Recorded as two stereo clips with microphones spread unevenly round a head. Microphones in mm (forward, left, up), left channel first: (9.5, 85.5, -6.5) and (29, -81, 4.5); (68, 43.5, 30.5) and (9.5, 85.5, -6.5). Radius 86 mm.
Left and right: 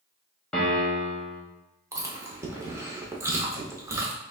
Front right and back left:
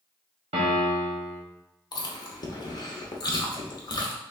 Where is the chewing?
10° right, 0.9 m.